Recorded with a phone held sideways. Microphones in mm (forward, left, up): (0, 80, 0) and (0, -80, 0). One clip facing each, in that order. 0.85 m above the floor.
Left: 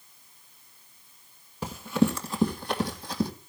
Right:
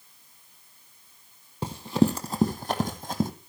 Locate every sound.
1.6 s running footsteps: 30° right (ahead or behind), 1.7 m; by 3.3 s 50° right (ahead or behind), 2.5 m